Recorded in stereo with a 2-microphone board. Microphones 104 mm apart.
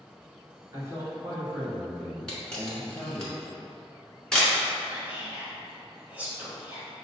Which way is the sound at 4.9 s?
15° right (ahead or behind).